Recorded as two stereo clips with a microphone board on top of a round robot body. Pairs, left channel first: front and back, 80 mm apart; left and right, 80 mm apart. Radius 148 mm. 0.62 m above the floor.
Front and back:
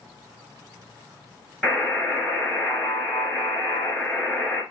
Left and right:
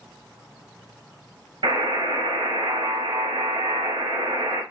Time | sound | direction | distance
1.6 | a buzzer | 85° right | 2.0 m